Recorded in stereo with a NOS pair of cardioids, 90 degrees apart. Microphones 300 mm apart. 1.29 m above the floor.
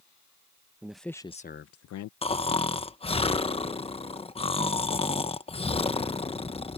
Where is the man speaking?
5° right; by 2.1 s 75° left.